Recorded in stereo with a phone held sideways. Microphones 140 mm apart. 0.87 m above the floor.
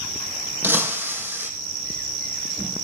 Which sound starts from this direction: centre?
Breaking glass, at 0.6 s.